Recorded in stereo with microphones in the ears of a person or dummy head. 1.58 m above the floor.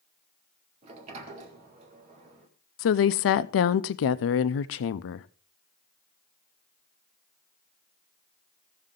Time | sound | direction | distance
0.8 | a sliding door | 35° right (ahead or behind) | 1.9 m
2.8 | a woman speaking | 70° left (ahead or behind) | 0.5 m